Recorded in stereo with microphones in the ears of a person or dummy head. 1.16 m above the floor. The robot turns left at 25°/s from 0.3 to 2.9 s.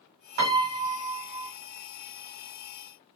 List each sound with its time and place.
0.4 s a piano: 50° right (ahead or behind), 1.5 m; by 1.5 s 20° right (ahead or behind), 1.5 m